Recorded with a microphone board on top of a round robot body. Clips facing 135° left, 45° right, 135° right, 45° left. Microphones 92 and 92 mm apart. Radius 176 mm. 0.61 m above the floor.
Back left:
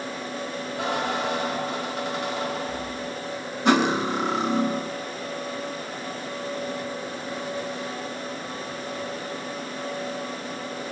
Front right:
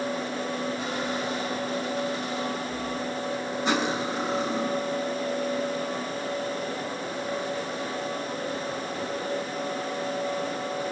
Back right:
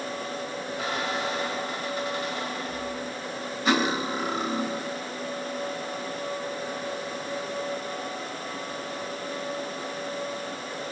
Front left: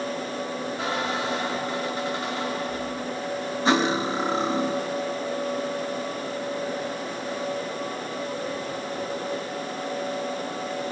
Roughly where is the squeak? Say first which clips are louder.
Back left 3 dB, front left 1 dB; left.